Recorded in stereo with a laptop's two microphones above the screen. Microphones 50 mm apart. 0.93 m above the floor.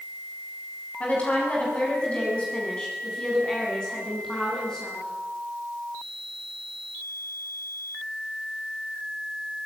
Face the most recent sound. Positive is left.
turn(degrees=10)  # may be behind; listen again after turning